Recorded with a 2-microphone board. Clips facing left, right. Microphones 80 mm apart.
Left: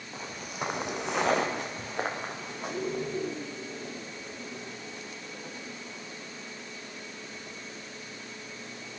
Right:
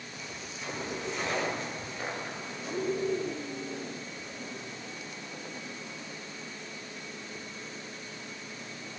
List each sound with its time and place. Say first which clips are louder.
0.1 s footsteps: left 8 dB; 35° left (ahead or behind), 1.3 m; by 3.1 s 55° left (ahead or behind), 4 m